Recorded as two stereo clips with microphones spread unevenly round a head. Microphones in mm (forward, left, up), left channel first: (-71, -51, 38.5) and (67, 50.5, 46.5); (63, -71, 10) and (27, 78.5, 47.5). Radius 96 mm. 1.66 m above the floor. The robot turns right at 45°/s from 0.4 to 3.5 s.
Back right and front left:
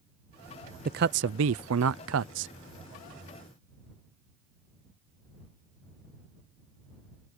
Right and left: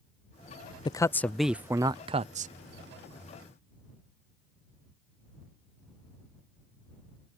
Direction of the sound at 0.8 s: 10° right.